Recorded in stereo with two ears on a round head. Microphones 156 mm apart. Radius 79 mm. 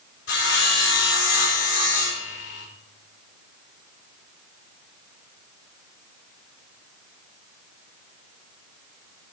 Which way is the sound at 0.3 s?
80° left.